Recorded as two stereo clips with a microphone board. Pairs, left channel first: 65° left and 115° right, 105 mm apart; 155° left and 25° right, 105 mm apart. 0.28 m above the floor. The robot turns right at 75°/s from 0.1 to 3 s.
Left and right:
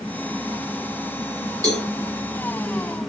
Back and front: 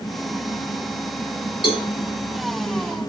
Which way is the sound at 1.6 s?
165° right.